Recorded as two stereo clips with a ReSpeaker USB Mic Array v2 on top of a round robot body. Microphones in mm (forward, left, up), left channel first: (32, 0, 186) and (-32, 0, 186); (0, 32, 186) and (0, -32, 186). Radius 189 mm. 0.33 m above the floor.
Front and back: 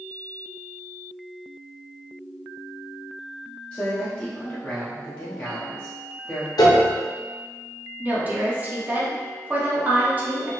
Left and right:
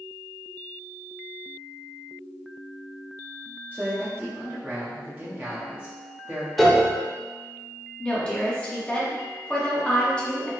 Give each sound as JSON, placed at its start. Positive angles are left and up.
{"t": 3.7, "sound": "a man speaking", "azimuth_deg": -60, "distance_m": 1.0}
{"t": 6.6, "sound": "a piano", "azimuth_deg": 0, "distance_m": 0.7}
{"t": 8.0, "sound": "a woman speaking", "azimuth_deg": 150, "distance_m": 1.2}